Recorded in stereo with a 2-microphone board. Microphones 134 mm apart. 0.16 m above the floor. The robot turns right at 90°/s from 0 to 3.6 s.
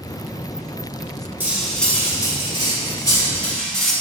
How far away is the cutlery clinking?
About 0.7 m.